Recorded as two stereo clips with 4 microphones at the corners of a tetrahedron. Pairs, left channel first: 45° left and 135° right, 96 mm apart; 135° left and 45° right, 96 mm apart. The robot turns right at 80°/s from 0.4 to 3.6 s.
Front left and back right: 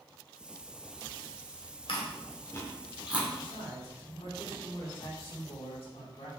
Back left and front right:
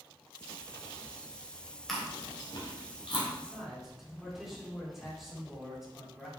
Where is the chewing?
50° left, 2 m; by 3.3 s 160° left, 2 m.